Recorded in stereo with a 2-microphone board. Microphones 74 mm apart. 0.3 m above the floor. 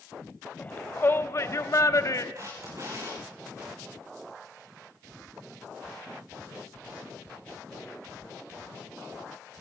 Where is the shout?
20° left (ahead or behind), 1.3 m; by 2.2 s 50° left (ahead or behind), 1.4 m.